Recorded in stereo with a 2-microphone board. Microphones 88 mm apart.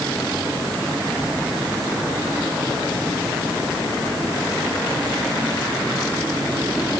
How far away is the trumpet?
I don't hear a trumpet.